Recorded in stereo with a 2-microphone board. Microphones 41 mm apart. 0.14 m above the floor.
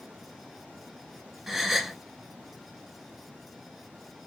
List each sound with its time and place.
1.5 s a gasp: centre (ahead or behind), 0.8 m